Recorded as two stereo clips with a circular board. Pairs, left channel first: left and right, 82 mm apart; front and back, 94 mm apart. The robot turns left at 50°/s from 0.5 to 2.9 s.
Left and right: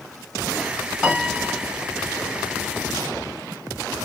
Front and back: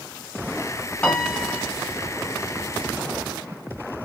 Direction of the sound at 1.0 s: 45° right.